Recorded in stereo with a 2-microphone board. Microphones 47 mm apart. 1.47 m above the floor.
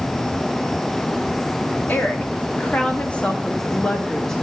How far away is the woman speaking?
About 2.5 m.